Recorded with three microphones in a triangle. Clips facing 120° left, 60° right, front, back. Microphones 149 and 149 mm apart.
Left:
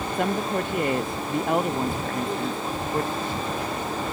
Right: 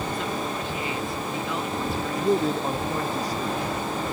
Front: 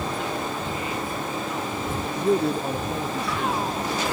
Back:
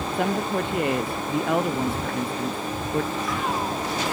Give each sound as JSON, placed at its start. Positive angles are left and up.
{"t": 0.1, "sound": "a woman speaking", "azimuth_deg": 150}
{"t": 2.0, "sound": "a man speaking", "azimuth_deg": -10}